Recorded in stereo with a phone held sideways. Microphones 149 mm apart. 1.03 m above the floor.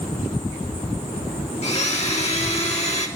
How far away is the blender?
About 1.7 m.